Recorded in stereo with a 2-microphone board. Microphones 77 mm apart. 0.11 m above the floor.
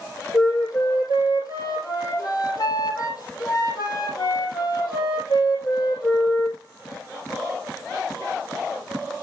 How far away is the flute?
About 4 m.